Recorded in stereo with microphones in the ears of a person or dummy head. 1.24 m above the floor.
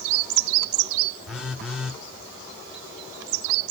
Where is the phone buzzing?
5° left (ahead or behind), 1.1 m.